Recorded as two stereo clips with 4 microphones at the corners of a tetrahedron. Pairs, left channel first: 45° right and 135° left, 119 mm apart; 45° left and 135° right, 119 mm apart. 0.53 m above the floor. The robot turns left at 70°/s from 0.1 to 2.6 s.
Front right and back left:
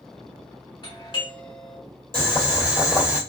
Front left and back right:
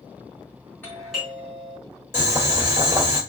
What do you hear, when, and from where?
0.8 s a doorbell: 25° right, 2 m; by 1.8 s 90° right, 2 m
2.1 s boiling: 65° right, 2 m; by 3.2 s 100° right, 2 m